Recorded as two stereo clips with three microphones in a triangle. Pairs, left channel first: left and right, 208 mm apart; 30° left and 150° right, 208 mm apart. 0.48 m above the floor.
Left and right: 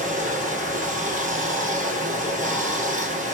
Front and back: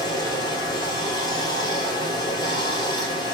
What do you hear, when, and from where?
0.0 s running water: 40° right, 1.4 m